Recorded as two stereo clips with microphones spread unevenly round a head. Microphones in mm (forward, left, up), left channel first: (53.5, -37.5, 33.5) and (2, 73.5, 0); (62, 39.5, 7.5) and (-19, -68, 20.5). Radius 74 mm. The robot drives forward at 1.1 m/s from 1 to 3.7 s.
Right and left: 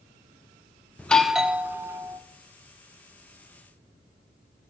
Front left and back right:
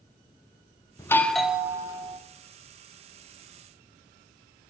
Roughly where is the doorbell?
Ahead left.